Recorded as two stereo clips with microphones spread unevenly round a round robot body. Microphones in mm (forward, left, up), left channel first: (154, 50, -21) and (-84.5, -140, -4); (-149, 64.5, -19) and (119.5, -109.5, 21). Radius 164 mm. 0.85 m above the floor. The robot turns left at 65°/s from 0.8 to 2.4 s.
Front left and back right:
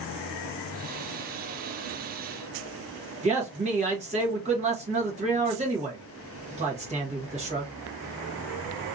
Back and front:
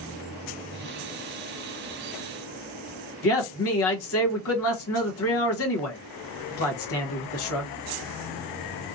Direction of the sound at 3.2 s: 150° left.